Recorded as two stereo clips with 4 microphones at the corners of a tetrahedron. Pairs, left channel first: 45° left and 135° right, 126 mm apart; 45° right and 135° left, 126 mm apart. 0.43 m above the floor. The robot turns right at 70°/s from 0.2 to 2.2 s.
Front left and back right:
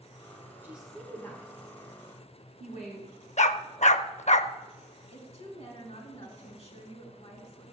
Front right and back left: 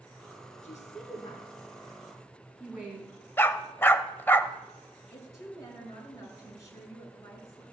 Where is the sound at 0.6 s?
60° right, 3.5 m; by 3.1 s 50° left, 3.5 m.